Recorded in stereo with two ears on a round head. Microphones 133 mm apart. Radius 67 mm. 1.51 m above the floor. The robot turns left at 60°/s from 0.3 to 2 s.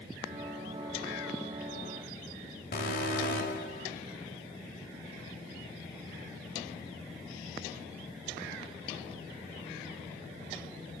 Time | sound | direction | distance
2.7 | an alarm | 60° left (ahead or behind) | 5 m